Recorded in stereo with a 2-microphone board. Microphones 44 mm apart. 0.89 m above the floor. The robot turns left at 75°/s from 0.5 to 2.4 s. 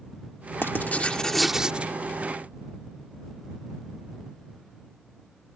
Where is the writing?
65° left; by 2.0 s 40° right.